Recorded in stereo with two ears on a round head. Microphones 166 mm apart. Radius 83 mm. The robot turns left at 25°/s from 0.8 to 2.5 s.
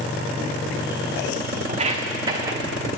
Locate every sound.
1.7 s footsteps: 35° right (ahead or behind), 2 m; by 2.6 s 15° right (ahead or behind), 2 m